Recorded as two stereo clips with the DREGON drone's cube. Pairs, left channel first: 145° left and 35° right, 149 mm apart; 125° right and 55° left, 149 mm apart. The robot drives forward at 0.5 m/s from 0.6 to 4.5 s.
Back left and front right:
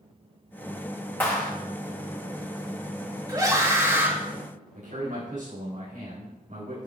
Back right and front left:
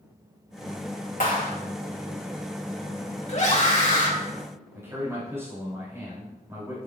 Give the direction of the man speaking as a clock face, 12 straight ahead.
1 o'clock.